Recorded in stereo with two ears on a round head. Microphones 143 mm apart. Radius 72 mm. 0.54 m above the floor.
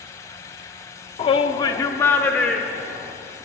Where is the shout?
35° left (ahead or behind), 0.7 m; by 3.1 s centre (ahead or behind), 1.5 m.